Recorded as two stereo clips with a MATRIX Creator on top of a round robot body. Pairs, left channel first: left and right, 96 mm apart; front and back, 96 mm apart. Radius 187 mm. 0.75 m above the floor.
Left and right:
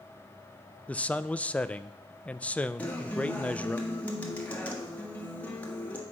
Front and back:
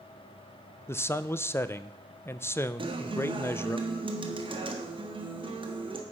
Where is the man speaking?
30° left, 0.6 m.